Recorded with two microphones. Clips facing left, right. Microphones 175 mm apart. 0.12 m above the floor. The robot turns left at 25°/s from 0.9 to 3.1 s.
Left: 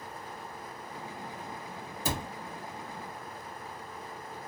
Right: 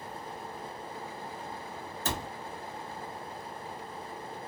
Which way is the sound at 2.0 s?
10° left (ahead or behind).